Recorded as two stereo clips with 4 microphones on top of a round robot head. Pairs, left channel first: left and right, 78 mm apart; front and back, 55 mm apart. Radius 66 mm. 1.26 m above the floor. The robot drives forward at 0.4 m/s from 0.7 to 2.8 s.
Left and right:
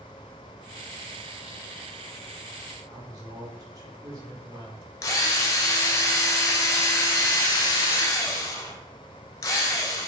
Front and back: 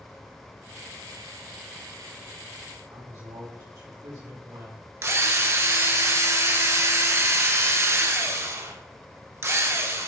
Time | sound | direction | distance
2.9 | a woman speaking | 145° right | 3 m
5.0 | a drill | 145° left | 1.0 m